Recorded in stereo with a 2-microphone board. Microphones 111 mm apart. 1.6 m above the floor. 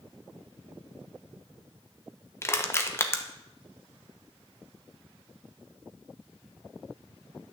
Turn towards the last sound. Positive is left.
turn(degrees=25)  # may be behind; listen again after turning